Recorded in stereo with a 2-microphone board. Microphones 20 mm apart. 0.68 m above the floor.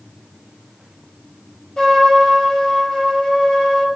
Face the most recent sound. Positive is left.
turn(degrees=40)  # may be behind; listen again after turning